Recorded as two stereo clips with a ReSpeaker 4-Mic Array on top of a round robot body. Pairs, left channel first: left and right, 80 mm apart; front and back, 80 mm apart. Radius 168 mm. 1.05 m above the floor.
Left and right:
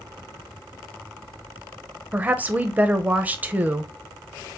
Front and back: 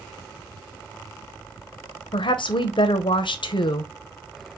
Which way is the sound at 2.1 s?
20° right.